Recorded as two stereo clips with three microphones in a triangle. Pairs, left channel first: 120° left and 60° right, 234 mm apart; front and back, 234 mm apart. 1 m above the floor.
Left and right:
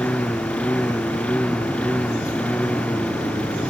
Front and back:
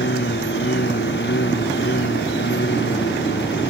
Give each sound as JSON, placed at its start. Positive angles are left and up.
{"t": 0.0, "sound": "a lawn mower", "azimuth_deg": 35}